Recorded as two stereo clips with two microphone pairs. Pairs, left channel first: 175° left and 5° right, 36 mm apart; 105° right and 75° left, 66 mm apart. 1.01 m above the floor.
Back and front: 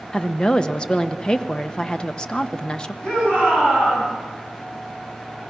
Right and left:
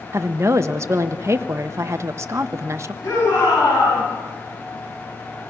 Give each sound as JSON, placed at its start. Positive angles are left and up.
{"t": 0.1, "sound": "a woman speaking", "azimuth_deg": 115, "distance_m": 0.9}
{"t": 3.0, "sound": "a shout", "azimuth_deg": -125, "distance_m": 7.5}